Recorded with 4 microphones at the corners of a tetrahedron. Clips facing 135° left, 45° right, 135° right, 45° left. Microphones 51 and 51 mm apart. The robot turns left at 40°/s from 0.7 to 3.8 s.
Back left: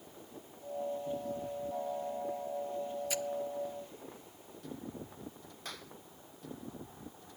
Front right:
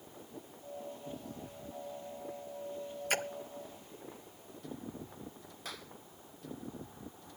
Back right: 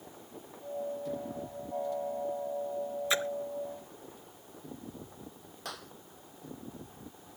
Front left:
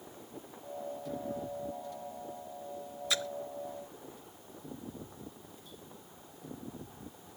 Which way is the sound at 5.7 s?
135° right.